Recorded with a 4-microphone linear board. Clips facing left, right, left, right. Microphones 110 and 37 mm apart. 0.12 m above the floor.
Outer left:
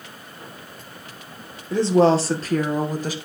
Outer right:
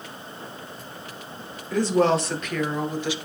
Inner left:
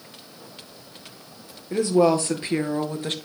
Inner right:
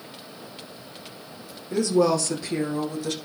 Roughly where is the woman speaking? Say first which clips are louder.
Outer left 4 dB, inner left 2 dB; left.